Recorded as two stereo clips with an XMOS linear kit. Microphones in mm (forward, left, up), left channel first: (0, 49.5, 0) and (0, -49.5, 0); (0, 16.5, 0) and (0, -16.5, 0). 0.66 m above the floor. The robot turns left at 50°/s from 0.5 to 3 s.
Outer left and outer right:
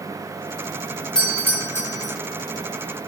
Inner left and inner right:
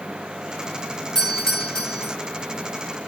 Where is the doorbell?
170° left, 1.1 m; by 2.1 s 120° left, 1.1 m.